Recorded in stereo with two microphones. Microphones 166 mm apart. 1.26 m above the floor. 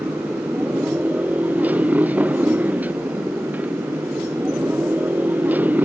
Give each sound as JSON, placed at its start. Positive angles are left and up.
{"t": 0.0, "sound": "a motorcycle", "side_deg": -10}